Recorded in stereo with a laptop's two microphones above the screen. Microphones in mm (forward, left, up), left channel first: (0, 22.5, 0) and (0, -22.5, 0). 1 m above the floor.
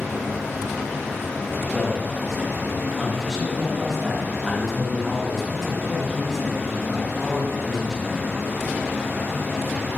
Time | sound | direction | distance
0.0 | a fan | 30° left (ahead or behind) | 1.5 m
1.7 | a man speaking | 5° left (ahead or behind) | 0.5 m